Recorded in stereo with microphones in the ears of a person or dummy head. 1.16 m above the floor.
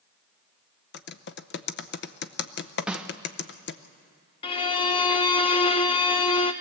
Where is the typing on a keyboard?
55° left (ahead or behind), 0.7 m.